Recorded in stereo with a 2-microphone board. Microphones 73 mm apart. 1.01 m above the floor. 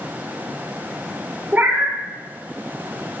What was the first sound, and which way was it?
A cat meowing, 25° right (ahead or behind).